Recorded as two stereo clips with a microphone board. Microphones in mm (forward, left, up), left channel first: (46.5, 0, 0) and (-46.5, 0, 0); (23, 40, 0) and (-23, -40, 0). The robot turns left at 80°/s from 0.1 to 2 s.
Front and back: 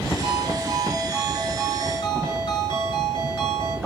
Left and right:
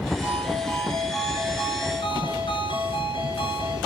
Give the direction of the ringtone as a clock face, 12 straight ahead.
6 o'clock.